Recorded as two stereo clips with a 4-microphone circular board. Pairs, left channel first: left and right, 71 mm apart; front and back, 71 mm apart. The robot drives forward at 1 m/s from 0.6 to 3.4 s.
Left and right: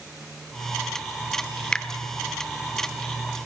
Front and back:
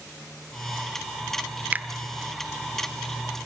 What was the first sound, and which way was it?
A finger snap, 155° left.